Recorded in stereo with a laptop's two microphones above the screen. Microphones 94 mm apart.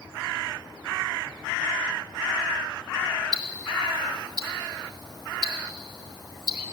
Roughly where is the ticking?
Right.